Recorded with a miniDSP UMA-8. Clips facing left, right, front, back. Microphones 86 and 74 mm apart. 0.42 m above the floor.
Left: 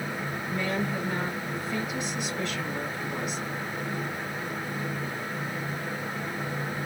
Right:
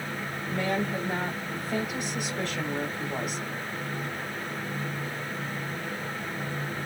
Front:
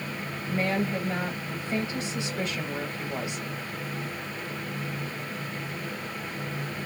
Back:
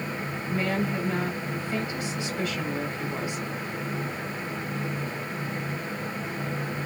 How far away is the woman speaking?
About 1.3 m.